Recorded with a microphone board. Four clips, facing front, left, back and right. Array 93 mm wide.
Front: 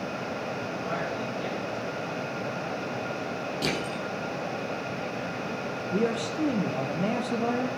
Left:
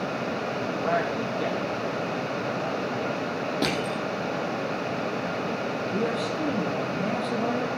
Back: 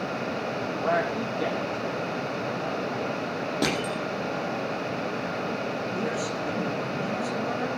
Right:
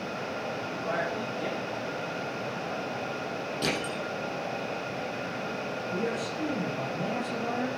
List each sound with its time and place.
0.8 s a man speaking: 140° left, 7.5 m; by 2.9 s 125° left, 7.5 m
3.6 s crushing: 135° left, 5.5 m
5.9 s a man speaking: 35° left, 4.5 m